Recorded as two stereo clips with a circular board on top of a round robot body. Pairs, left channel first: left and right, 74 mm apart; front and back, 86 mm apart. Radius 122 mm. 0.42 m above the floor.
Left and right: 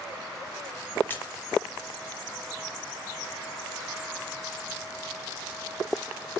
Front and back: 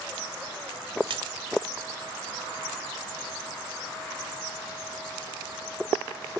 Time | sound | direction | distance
1.1 | a splash | 155° left | 1.4 m